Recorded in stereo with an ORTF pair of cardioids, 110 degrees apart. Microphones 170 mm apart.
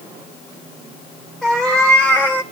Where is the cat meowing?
Straight ahead, 3 m; by 2.4 s 15° left, 2 m.